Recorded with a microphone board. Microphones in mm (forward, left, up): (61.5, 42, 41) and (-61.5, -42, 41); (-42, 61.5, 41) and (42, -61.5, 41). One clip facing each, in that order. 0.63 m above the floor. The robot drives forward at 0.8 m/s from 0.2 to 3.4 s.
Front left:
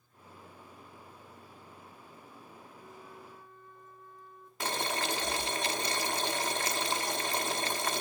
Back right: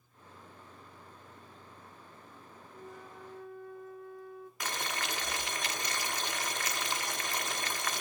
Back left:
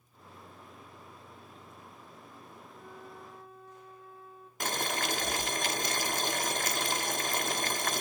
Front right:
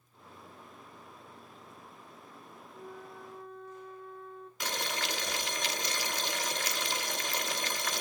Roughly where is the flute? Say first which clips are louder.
Back right 5 dB, front right 3 dB; behind right.